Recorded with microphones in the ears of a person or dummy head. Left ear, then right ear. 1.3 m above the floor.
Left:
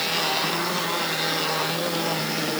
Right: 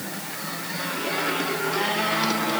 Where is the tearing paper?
No tearing paper in this recording.